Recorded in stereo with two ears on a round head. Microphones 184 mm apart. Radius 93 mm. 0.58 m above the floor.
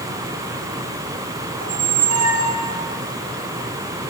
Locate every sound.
1.6 s a squeak: 75° right (ahead or behind), 2.5 m